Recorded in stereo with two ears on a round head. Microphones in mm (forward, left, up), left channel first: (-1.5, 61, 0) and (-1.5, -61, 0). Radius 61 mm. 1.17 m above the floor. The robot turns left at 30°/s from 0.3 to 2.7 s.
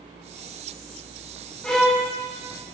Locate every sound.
1.6 s a violin: 5° left (ahead or behind), 0.7 m; by 2.1 s 5° right (ahead or behind), 0.7 m